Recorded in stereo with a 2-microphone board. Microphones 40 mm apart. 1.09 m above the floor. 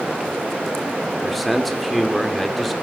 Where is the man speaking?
Centre (ahead or behind), 2.5 m.